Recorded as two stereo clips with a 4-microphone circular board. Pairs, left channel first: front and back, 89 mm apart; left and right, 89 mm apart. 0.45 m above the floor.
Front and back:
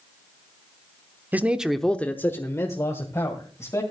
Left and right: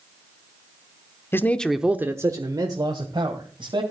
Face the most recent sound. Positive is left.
turn(degrees=-55)